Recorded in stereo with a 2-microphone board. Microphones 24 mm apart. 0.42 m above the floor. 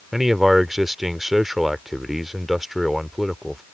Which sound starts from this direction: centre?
A man speaking, at 0.1 s.